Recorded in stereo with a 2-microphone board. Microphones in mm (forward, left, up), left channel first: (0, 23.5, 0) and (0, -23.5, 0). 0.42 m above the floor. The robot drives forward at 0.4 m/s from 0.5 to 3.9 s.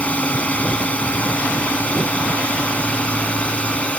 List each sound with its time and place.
0.0 s a drone: 30° left (ahead or behind); by 4.0 s 25° left (ahead or behind)